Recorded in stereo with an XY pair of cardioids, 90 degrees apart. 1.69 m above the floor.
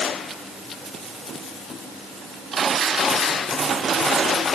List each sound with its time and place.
Only background noise.